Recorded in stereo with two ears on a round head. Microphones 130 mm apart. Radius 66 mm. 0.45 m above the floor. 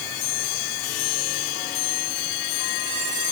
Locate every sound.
Only background noise.